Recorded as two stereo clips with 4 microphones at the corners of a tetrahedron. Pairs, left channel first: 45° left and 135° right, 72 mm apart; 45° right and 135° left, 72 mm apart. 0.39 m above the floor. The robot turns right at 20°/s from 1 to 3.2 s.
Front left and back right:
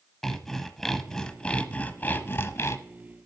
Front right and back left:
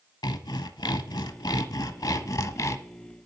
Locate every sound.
0.2 s sawing: 40° right, 0.6 m; by 2.8 s 5° right, 0.6 m